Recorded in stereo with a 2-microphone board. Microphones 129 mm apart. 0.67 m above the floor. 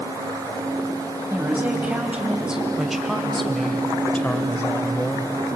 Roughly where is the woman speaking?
Centre.